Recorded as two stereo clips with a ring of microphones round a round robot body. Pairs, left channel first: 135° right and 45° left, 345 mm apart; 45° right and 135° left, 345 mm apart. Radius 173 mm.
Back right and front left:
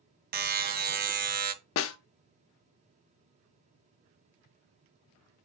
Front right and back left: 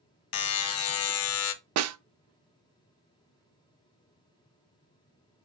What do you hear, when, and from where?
0.3 s a buzzer: 10° right, 0.5 m
1.8 s a snare drum: 175° left, 0.5 m